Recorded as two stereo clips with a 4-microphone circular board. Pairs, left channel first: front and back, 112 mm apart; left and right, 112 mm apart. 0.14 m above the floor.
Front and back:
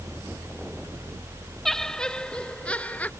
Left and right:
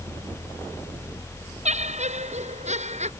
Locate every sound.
1.6 s laughter: 85° right; by 3.1 s 75° right